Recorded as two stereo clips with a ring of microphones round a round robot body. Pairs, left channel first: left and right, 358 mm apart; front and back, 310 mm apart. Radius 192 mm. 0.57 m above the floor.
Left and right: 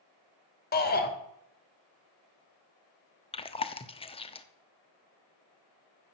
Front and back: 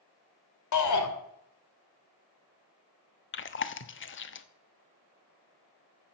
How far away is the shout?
About 2.5 m.